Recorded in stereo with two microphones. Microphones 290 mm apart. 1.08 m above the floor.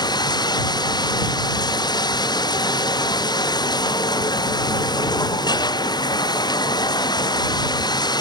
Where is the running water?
15° left (ahead or behind).